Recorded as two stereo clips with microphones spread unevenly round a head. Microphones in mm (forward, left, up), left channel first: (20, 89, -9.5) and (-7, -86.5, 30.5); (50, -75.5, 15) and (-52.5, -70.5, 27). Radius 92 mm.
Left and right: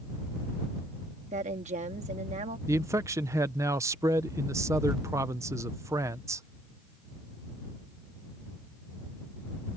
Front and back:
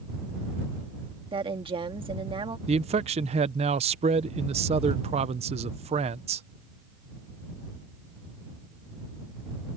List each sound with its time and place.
1.3 s a woman speaking: 150° right
2.7 s a man speaking: 170° right